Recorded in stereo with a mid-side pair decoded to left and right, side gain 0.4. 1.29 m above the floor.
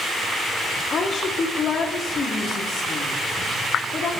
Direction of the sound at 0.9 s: 60° left.